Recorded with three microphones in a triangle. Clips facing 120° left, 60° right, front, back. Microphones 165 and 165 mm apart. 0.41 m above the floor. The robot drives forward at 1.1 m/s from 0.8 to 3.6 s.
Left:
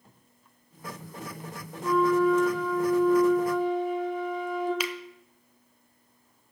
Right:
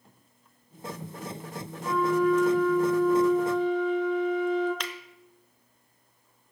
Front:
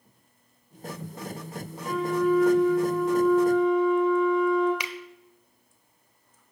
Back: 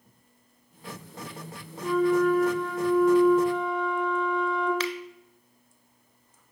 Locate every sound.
1.8 s a flute: 145° right, 1.0 m; by 4.7 s 170° right, 3 m
4.8 s a finger snap: 50° left, 0.7 m